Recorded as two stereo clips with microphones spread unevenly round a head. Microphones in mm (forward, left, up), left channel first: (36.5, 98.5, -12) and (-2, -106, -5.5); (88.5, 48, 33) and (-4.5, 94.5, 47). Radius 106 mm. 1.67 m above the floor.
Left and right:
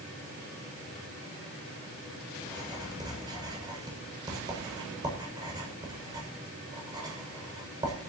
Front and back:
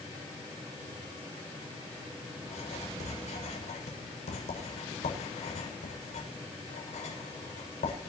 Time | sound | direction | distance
2.4 | writing | 30° right | 7 m